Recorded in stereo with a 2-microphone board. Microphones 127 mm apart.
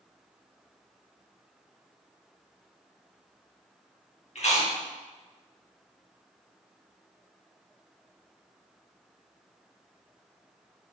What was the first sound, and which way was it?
Chewing, 55° left (ahead or behind).